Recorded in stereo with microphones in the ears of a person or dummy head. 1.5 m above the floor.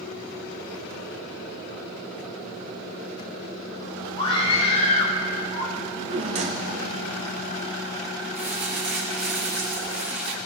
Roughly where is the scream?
Left.